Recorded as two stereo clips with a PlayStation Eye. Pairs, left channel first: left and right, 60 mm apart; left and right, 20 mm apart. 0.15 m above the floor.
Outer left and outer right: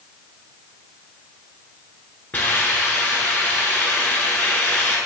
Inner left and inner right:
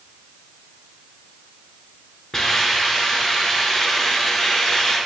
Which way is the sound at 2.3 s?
30° left (ahead or behind).